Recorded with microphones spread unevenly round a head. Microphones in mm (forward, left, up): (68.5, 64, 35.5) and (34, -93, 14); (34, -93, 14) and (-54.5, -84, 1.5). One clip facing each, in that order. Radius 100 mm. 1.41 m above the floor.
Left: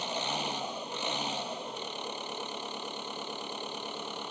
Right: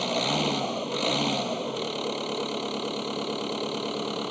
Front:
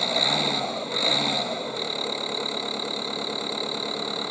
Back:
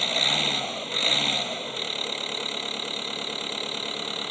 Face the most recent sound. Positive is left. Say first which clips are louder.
# right 9 dB, front 3 dB
turn(degrees=-80)